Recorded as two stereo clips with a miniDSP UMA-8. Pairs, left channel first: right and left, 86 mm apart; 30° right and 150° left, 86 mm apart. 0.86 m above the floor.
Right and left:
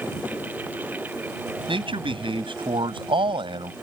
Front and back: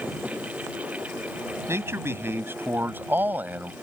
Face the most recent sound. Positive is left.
turn(degrees=80)